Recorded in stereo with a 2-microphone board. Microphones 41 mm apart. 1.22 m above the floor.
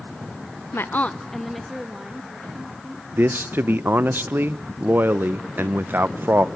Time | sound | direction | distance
0.7 | a woman speaking | 80° left | 0.6 m
3.1 | a man speaking | 55° right (ahead or behind) | 0.6 m